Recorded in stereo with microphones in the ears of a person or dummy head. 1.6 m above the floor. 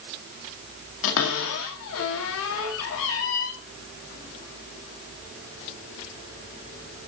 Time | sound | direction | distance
1.0 | a cupboard door | 65° left (ahead or behind) | 2 m